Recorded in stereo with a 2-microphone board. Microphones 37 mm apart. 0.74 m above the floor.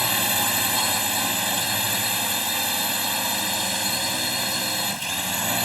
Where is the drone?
5° right (ahead or behind).